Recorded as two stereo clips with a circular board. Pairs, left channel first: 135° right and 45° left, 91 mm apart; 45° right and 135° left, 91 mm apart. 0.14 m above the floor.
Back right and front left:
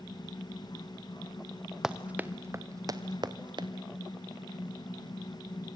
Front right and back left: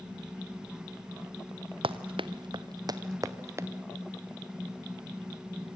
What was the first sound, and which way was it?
Running footsteps, 130° left.